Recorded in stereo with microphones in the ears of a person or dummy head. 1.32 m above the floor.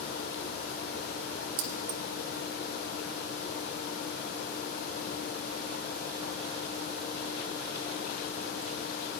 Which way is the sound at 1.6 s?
45° right (ahead or behind).